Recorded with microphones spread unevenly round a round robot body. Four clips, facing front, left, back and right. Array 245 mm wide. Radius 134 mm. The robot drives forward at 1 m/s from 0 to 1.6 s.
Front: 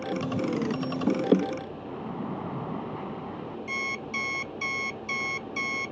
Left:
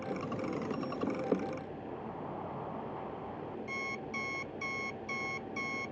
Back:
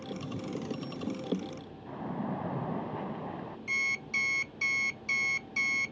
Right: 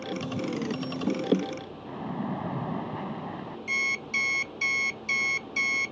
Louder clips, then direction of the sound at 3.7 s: Right 6 dB, front 1 dB; 130° right.